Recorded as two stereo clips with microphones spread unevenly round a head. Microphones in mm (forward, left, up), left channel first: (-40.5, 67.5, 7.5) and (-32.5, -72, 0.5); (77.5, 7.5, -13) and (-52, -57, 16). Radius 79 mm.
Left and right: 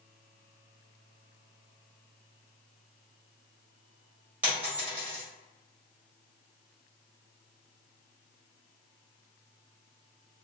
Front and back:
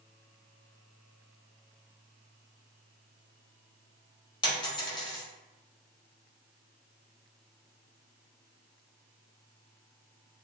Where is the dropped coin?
15° right, 1.5 m.